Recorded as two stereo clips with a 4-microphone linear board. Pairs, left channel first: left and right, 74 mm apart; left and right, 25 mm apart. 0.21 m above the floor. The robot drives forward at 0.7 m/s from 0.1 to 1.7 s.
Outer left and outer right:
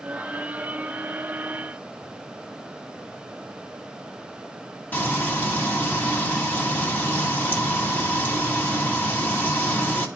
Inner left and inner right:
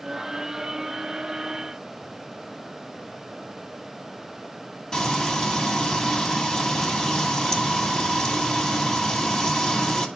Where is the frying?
30° left (ahead or behind), 2.0 m.